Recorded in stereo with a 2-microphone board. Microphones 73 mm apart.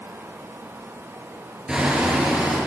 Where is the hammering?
10° right (ahead or behind), 8.5 m.